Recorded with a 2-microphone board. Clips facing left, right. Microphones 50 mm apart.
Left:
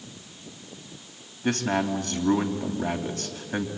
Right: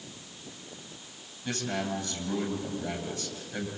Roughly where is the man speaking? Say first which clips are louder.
Left 7 dB; left.